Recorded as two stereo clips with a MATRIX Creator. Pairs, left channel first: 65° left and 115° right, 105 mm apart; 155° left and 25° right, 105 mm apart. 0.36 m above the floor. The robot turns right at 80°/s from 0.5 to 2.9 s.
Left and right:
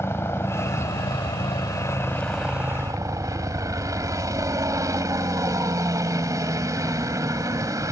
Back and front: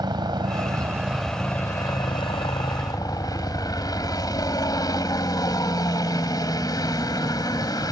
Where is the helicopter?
5° left; by 7.9 s 160° right.